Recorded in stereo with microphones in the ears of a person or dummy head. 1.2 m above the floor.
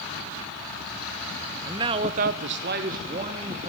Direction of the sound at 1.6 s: 20° right (ahead or behind).